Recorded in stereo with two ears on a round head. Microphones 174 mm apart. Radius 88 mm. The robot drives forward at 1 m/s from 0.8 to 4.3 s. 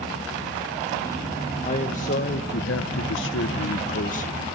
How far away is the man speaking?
About 1.9 m.